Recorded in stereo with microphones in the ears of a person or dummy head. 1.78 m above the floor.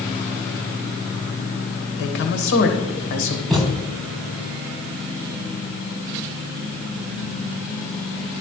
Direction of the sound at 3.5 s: 5° right (ahead or behind).